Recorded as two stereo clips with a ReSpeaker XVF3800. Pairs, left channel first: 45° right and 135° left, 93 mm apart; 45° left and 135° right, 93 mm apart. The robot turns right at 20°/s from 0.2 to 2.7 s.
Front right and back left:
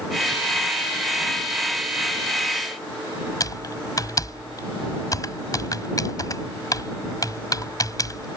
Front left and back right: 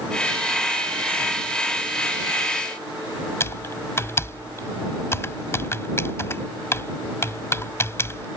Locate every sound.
3.4 s typing on a keyboard: 10° right